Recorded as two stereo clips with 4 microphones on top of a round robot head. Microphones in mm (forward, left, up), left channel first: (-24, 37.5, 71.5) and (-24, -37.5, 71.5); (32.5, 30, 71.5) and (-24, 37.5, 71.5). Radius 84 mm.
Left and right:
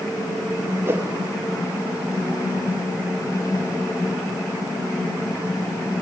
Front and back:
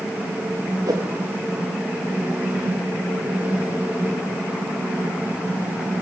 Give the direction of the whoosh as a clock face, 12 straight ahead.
5 o'clock.